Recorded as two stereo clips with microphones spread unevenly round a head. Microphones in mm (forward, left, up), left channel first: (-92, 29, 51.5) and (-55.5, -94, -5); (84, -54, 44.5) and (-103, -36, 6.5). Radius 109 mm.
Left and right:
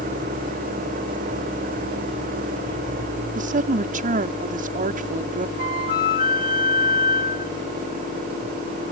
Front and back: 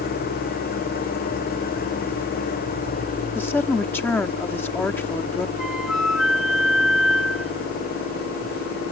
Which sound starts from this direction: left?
A flute, at 5.6 s.